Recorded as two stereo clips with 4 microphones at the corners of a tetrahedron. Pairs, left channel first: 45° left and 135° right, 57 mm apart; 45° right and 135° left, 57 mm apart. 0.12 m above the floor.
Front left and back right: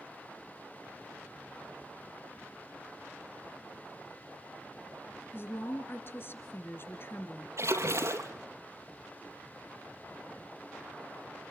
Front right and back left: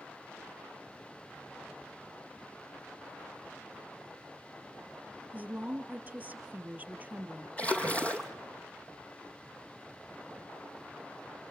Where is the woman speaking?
80° left, 3 m.